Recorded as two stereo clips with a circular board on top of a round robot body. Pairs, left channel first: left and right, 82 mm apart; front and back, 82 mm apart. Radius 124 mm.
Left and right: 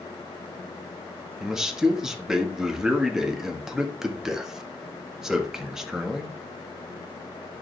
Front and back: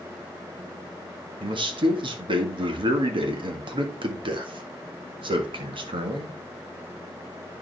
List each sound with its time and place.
1.4 s a man speaking: 175° right, 1.8 m